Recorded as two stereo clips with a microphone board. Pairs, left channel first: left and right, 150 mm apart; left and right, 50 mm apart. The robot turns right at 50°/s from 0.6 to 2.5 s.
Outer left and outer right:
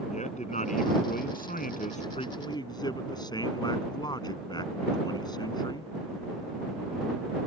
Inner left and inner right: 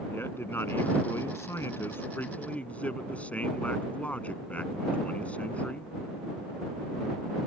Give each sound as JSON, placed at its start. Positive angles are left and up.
{"t": 0.1, "sound": "a man speaking", "azimuth_deg": 55}